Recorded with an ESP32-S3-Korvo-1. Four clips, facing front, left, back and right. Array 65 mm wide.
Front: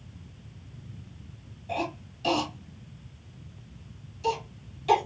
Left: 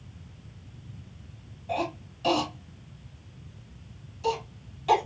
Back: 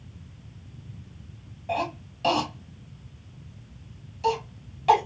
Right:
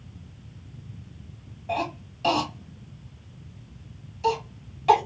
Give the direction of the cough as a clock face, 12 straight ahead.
5 o'clock.